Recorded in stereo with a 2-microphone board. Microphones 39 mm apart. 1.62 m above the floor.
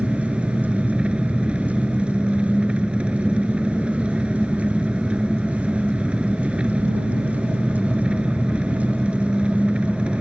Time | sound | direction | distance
0.0 | an engine running | 30° right (ahead or behind) | ?